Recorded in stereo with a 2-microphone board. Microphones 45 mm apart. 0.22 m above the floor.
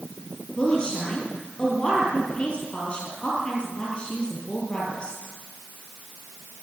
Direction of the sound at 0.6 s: 25° left (ahead or behind).